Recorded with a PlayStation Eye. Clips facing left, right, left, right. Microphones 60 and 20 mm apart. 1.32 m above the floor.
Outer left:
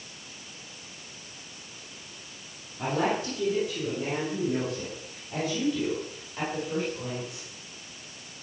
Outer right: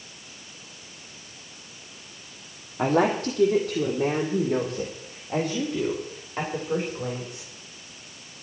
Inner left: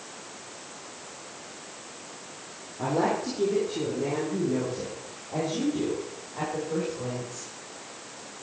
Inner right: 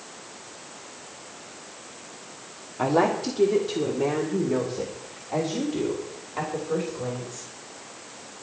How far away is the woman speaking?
About 2.5 m.